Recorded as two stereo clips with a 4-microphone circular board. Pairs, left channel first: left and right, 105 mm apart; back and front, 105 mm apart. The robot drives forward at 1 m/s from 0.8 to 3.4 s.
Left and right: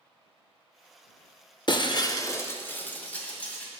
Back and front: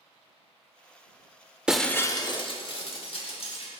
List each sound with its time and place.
1.7 s breaking glass: 80° left, 0.6 m; by 3.8 s 165° left, 1.7 m